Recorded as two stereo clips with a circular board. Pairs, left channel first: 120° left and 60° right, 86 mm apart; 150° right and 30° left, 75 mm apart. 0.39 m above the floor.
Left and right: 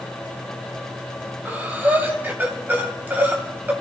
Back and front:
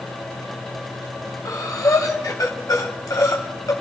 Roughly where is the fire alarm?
I don't hear a fire alarm.